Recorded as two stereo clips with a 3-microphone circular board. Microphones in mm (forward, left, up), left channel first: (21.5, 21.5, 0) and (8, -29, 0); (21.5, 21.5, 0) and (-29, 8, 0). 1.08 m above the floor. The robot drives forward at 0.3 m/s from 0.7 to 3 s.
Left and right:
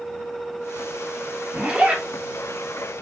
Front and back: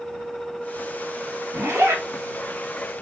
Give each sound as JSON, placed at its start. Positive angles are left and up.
{"t": 1.5, "sound": "a zipper", "azimuth_deg": -165, "distance_m": 1.4}